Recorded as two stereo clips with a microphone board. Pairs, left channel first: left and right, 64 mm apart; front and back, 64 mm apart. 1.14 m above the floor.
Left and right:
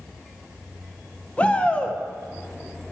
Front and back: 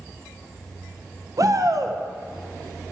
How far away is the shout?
About 0.6 m.